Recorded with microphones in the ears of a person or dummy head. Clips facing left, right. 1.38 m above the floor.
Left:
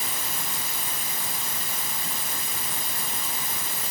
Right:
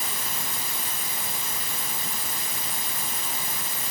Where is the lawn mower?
I don't hear a lawn mower.